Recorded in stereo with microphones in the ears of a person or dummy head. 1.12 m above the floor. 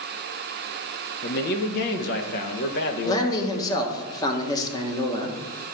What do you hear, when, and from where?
1.2 s a man speaking: 55° left (ahead or behind), 1.1 m
3.0 s a man speaking: 15° left (ahead or behind), 1.3 m